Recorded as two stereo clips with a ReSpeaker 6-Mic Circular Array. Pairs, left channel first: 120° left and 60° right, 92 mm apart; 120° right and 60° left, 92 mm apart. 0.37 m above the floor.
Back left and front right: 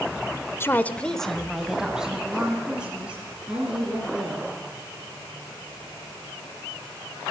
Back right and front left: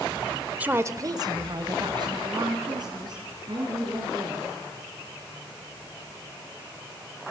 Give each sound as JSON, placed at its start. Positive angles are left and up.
{"t": 0.6, "sound": "a woman speaking", "azimuth_deg": 110, "distance_m": 0.8}